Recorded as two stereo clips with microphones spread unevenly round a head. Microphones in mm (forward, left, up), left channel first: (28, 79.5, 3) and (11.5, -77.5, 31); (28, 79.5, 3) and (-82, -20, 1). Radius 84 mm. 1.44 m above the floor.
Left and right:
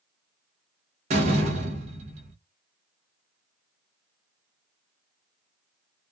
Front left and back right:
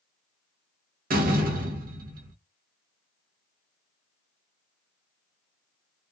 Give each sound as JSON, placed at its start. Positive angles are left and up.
{"t": 1.1, "sound": "a door slam", "azimuth_deg": -135, "distance_m": 0.9}